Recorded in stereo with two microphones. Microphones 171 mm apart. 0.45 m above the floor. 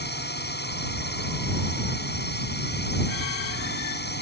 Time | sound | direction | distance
0.0 | a drone | 70° left (ahead or behind) | ?